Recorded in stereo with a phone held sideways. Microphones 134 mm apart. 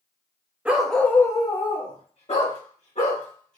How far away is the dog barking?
About 0.9 m.